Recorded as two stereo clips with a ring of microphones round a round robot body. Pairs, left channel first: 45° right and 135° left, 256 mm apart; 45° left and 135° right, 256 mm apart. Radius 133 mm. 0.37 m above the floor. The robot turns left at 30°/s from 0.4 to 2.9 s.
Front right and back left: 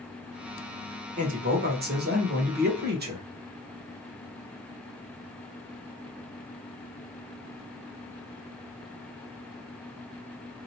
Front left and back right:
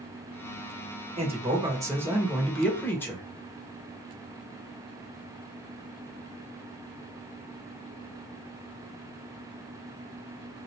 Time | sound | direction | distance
1.2 | a man speaking | 175° left | 1.5 m